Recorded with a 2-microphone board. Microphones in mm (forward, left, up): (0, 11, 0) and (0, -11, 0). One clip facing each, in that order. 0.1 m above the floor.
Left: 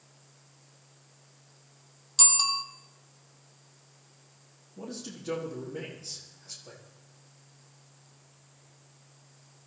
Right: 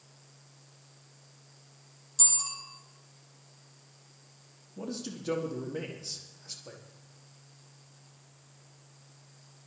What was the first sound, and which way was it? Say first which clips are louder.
A bicycle bell: left 8 dB; 55° left (ahead or behind).